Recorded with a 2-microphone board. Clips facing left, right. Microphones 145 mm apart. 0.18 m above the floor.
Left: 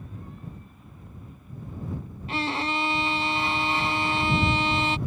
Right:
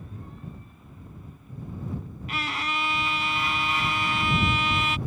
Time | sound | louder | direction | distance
2.3 | a violin | left 4 dB | 30° left (ahead or behind) | ?